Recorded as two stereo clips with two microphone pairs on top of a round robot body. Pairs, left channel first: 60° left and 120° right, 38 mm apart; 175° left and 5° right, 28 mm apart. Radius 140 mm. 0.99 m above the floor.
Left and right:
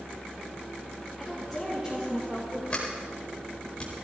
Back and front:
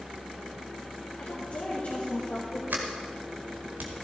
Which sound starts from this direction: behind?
A woman speaking, at 1.2 s.